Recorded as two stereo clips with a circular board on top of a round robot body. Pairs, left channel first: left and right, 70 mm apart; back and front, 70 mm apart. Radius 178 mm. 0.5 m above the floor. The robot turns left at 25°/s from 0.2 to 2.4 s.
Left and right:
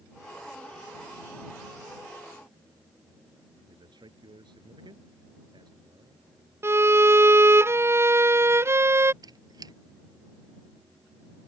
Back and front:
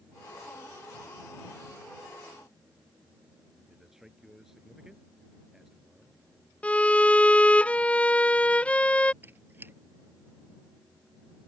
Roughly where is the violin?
Behind right.